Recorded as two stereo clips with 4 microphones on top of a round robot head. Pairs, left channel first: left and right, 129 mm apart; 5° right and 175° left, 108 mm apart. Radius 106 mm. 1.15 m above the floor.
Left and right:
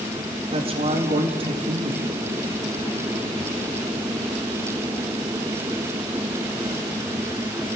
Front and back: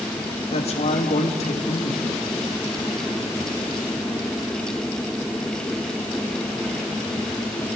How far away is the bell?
No bell in this recording.